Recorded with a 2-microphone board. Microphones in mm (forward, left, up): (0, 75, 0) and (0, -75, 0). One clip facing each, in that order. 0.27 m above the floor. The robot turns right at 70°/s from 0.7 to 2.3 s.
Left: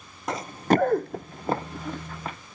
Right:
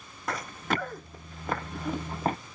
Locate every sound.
0.3 s running footsteps: 20° left (ahead or behind); by 2.4 s 45° right (ahead or behind)